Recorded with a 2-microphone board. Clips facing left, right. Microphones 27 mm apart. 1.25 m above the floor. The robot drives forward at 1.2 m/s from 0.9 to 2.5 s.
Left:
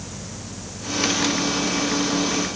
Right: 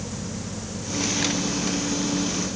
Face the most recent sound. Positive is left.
No sound to turn to.